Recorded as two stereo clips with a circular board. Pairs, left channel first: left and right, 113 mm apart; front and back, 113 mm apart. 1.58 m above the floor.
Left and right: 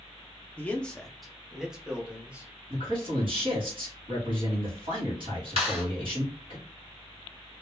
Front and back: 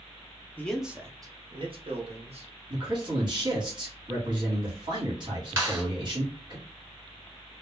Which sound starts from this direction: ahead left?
A man speaking, at 0.6 s.